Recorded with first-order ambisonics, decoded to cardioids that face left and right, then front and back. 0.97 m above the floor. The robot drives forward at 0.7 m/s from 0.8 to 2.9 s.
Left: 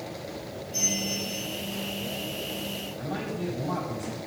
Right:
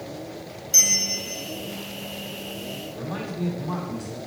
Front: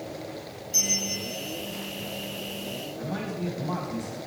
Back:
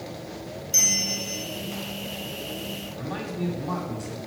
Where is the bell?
115° right, 0.5 m; by 1.4 s 145° right, 0.8 m.